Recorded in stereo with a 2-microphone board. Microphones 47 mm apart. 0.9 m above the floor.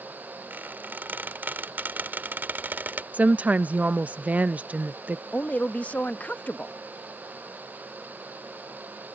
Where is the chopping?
No chopping in this recording.